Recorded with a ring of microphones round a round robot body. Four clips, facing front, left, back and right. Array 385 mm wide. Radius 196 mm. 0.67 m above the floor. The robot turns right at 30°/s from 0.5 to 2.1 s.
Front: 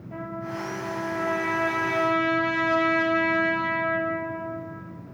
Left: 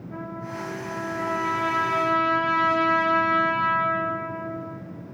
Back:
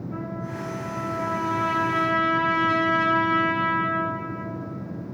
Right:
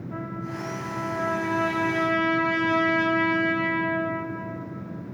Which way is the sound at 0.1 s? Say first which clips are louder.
Even, front 2 dB; 25° right.